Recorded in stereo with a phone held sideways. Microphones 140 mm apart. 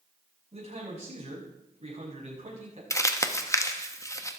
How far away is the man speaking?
About 6 m.